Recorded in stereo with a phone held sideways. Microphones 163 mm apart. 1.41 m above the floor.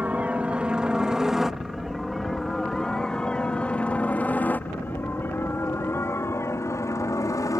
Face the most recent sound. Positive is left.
turn(degrees=20)  # may be behind; listen again after turning